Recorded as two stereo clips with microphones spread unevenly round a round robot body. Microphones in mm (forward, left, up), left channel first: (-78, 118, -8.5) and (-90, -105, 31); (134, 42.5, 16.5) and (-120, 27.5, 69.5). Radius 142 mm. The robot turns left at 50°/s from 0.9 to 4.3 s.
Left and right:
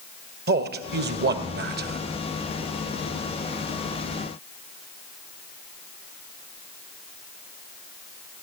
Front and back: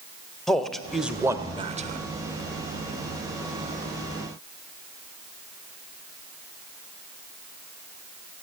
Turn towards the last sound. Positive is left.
turn(degrees=125)